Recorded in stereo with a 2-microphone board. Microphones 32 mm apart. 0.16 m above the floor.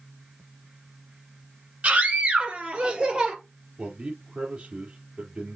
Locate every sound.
1.8 s a scream: 45° right (ahead or behind), 4.5 m; by 3.4 s 30° right (ahead or behind), 3.5 m
3.8 s a man speaking: 40° right (ahead or behind), 4.5 m